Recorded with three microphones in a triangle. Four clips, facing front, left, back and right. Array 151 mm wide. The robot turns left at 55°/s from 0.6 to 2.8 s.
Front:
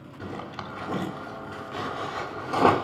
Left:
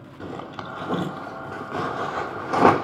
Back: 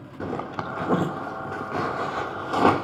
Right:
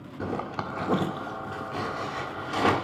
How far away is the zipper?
About 1.5 m.